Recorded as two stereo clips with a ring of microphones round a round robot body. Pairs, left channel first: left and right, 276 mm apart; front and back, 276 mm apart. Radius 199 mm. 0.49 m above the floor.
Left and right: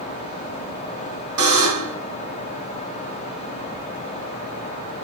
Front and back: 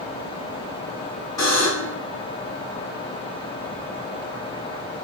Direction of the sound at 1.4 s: 80° right.